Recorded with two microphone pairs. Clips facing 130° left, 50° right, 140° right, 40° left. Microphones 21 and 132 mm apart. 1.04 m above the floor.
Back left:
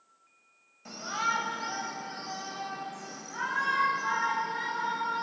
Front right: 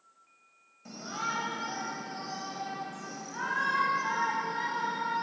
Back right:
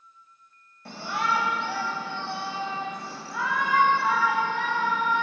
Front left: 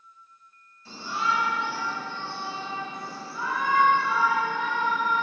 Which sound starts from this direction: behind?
A shout, at 0.8 s.